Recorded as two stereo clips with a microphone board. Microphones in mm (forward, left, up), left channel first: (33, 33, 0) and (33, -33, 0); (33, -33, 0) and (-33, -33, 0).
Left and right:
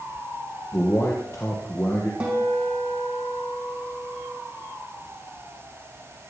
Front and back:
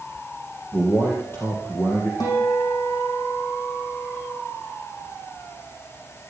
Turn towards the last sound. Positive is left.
turn(degrees=-15)